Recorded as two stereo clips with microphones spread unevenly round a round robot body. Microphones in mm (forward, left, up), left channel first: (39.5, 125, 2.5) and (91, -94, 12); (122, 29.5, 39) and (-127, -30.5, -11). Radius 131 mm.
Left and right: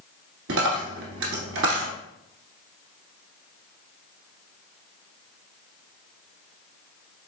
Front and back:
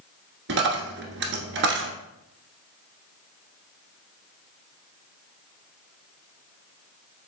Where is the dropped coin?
120° right, 1.2 m.